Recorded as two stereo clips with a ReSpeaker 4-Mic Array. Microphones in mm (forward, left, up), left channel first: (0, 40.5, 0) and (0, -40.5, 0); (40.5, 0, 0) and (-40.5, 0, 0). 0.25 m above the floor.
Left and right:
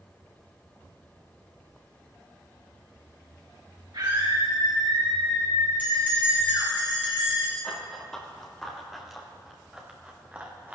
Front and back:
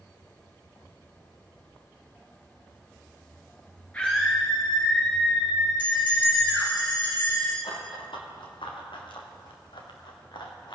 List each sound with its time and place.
3.9 s a scream: 75° right, 3 m; by 6.7 s 95° right, 3.5 m
5.8 s a bell: 20° right, 5.5 m
7.6 s running footsteps: 10° left, 3.5 m; by 10.8 s 20° right, 2.5 m